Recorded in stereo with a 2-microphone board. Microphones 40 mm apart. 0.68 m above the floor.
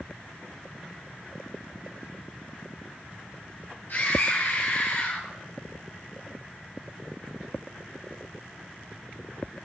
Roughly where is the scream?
Left.